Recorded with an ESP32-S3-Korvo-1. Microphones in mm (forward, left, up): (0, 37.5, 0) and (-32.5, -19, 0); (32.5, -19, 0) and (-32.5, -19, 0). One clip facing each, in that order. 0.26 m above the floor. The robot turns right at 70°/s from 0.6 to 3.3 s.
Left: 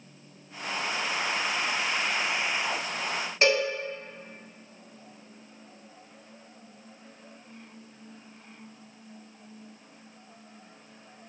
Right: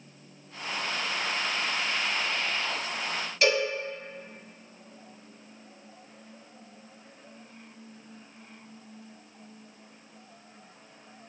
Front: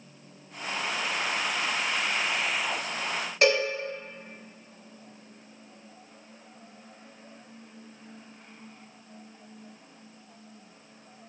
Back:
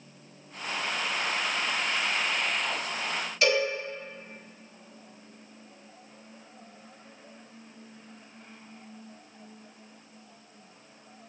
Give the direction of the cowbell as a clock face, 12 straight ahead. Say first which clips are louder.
Left 1 dB, front 2 dB; 12 o'clock.